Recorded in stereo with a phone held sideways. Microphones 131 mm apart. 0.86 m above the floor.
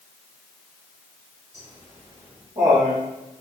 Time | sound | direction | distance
1.5 | laughter | 60° right (ahead or behind) | 4 m